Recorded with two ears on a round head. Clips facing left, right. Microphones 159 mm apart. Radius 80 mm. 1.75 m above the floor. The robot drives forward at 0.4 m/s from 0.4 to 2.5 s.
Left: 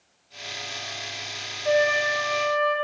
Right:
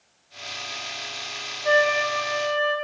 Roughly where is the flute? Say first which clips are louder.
Even; right.